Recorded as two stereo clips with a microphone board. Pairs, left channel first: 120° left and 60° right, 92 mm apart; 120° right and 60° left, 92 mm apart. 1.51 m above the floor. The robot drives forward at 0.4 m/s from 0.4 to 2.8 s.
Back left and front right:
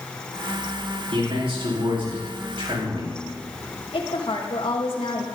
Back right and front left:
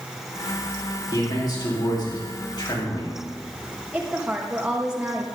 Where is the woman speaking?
140° left, 2.5 m.